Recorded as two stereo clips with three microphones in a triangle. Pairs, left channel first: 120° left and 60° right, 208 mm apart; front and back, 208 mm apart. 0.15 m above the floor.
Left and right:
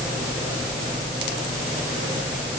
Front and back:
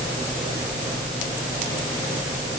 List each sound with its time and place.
Only background noise.